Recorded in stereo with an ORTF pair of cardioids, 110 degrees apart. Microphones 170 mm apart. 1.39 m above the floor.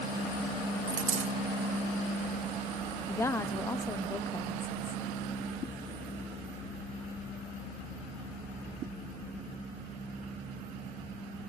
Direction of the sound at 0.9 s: 55° right.